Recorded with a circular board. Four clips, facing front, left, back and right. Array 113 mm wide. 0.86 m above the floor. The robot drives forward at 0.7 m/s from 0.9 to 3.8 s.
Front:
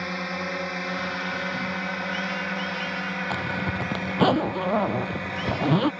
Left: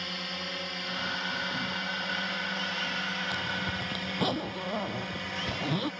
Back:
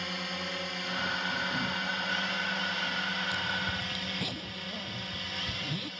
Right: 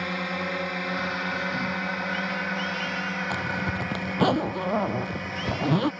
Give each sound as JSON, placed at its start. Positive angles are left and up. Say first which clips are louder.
{"t": 0.0, "sound": "a drone", "louder": "right 9 dB, front 7 dB", "azimuth_deg": -50}
{"t": 3.3, "sound": "a zipper", "louder": "right 5 dB, front 6 dB", "azimuth_deg": -25}